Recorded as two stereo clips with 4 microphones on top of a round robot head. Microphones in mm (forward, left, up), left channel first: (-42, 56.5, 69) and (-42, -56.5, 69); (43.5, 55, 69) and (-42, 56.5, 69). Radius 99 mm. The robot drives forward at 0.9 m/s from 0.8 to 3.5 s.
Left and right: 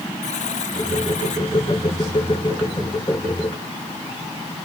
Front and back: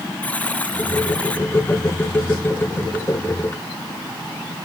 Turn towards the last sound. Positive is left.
turn(degrees=80)